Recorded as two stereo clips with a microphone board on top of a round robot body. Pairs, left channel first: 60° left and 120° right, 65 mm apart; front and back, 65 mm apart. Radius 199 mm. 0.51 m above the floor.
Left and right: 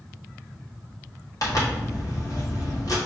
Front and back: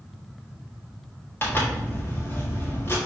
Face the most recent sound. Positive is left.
turn(degrees=50)